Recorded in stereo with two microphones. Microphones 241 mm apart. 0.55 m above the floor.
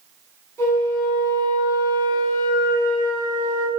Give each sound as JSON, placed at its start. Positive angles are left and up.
{"t": 0.6, "sound": "a flute", "side_deg": 10, "distance_m": 6.5}